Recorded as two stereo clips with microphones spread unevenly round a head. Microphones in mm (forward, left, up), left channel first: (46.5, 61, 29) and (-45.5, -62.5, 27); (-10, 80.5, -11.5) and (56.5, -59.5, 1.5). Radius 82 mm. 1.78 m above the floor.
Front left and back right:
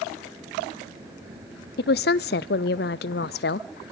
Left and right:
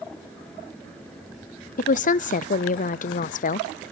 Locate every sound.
1.8 s a woman speaking: 75° left, 0.6 m